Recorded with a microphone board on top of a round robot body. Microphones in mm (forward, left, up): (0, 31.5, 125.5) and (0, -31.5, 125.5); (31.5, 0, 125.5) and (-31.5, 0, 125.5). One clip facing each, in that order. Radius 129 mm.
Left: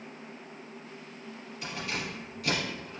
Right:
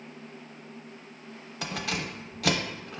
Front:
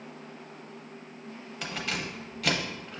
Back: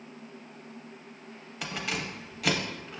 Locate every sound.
1.6 s keys jangling: 95° right, 0.5 m